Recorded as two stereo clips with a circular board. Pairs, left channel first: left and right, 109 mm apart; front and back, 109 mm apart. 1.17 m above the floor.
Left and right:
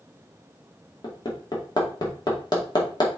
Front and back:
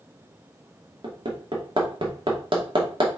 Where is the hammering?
140° left, 2 m.